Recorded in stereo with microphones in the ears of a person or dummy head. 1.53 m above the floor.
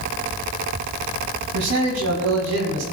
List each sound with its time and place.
1.5 s a man speaking: 85° right, 2 m